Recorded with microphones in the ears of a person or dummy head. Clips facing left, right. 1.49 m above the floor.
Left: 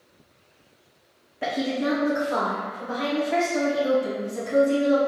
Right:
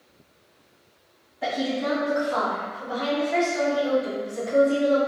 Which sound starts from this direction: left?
A woman speaking, at 1.4 s.